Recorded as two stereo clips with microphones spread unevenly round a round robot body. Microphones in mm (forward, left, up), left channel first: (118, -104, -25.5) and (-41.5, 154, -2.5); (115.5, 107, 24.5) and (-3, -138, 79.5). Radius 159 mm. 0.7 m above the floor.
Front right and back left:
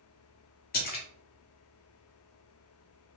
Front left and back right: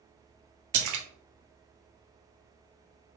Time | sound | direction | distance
0.7 | a splash | 110° right | 0.8 m